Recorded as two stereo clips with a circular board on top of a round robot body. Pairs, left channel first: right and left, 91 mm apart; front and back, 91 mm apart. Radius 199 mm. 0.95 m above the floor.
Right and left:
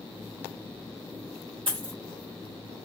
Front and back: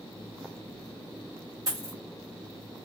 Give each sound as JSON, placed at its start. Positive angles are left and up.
{"t": 1.7, "sound": "a dropped coin", "azimuth_deg": 125, "distance_m": 0.7}